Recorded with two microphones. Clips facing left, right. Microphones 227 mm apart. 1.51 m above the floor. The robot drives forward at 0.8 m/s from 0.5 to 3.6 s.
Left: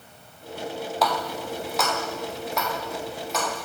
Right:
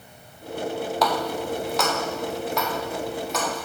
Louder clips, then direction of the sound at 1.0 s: Right 2 dB; centre (ahead or behind).